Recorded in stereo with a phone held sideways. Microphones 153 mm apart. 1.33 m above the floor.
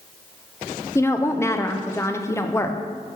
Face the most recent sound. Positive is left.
turn(degrees=20)  # may be behind; listen again after turning